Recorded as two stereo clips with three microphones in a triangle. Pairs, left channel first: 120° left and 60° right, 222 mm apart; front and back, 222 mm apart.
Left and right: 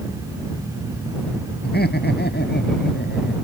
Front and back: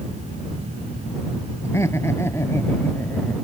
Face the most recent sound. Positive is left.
turn(degrees=80)